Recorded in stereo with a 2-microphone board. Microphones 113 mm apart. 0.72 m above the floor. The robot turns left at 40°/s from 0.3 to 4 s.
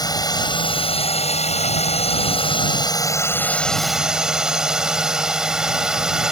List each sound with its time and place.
0.0 s a drone: 145° left; by 6.3 s 5° right